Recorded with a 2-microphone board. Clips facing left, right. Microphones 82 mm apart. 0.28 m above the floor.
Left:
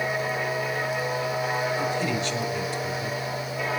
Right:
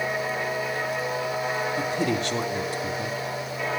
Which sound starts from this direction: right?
A man speaking, at 1.8 s.